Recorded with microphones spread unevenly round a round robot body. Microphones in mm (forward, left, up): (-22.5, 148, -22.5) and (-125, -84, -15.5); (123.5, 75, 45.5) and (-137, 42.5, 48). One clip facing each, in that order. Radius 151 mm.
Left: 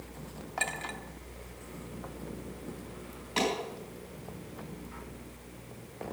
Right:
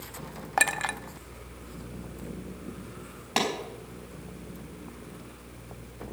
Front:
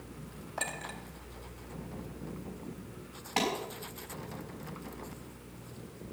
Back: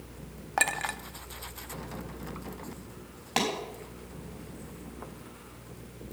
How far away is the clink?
About 0.7 m.